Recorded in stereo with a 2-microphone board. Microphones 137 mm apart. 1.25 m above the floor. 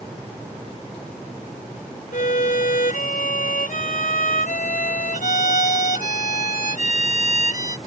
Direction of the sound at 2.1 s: 80° left.